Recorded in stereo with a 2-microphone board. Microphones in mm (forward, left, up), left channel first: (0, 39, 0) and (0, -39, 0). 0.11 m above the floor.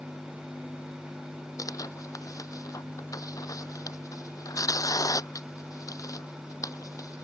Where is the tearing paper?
45° left (ahead or behind).